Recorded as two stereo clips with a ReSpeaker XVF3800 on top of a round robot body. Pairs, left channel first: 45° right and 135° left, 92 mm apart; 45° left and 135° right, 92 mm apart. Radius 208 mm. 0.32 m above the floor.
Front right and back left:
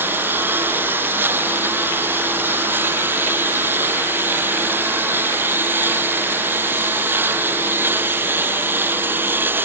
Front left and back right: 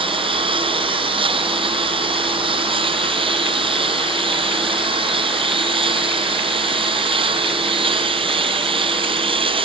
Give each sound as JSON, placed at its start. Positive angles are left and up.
{"t": 0.0, "sound": "a lawn mower", "azimuth_deg": -155}